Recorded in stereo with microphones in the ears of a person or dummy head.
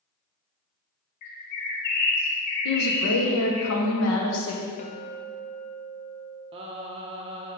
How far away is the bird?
About 1.0 m.